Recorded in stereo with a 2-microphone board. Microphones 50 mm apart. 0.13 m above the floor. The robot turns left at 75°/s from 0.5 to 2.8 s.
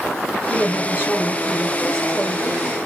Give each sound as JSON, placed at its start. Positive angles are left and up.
{"t": 0.5, "sound": "a woman speaking", "azimuth_deg": 135, "distance_m": 2.0}